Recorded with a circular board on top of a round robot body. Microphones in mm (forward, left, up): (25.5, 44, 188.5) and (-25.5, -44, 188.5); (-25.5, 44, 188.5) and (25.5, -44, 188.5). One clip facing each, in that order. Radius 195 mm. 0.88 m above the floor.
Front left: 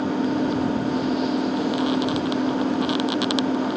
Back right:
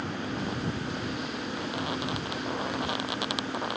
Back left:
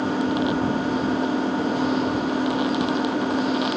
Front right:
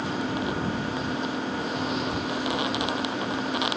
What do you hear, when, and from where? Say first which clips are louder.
0.0 s an engine running: front left 11 dB, back left 6 dB; 60° left